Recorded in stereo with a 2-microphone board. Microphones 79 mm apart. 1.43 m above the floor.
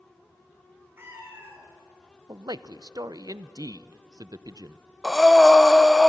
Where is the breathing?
Centre (ahead or behind), 0.6 m.